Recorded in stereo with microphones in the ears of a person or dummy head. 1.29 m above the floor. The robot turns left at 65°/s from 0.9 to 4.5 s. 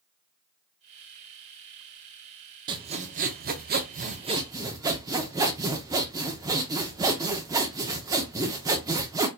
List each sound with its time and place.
2.7 s sawing: 35° right, 0.5 m; by 9.3 s 155° right, 0.5 m